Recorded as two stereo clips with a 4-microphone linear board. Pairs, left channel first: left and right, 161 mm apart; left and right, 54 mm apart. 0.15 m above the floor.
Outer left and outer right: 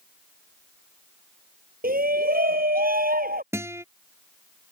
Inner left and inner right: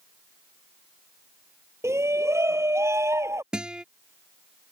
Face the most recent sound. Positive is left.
turn(degrees=-15)  # may be behind; listen again after turning